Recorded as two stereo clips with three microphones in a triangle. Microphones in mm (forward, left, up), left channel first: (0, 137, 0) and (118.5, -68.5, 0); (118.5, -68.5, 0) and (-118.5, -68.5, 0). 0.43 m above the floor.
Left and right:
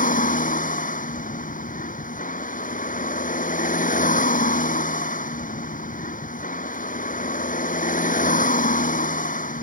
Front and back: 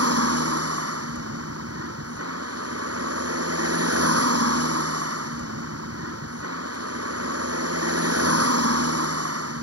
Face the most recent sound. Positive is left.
turn(degrees=175)